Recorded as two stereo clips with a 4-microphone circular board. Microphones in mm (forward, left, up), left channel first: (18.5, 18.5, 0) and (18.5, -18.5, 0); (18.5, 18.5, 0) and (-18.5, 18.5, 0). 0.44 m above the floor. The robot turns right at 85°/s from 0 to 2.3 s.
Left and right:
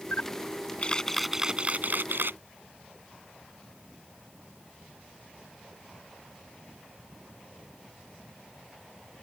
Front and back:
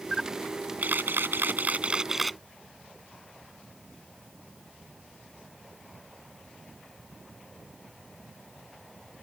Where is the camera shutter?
85° left; by 2.4 s 90° right.